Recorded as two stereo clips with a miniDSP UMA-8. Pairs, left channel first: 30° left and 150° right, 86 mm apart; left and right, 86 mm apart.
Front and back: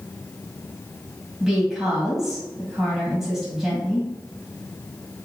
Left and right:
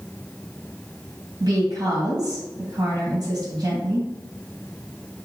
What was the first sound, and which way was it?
A woman speaking, 65° right.